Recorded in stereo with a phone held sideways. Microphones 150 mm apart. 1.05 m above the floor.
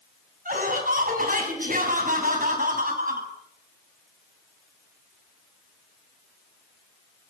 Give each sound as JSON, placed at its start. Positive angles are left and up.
{"t": 0.5, "sound": "laughter", "side_deg": -65, "distance_m": 8.0}